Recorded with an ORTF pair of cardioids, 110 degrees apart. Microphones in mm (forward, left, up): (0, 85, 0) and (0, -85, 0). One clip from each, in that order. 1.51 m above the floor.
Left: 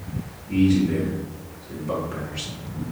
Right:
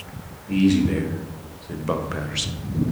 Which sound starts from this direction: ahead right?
A man speaking, at 0.5 s.